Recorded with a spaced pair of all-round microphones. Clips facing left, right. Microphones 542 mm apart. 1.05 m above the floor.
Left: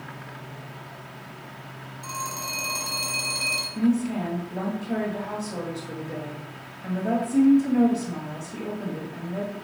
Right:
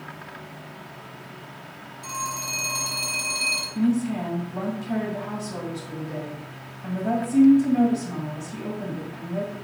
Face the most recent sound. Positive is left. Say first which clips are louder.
# even
turn(degrees=-25)  # may be behind; listen again after turning